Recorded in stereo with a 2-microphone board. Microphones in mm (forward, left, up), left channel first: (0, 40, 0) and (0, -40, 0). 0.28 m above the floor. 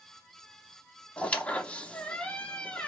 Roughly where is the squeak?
Centre.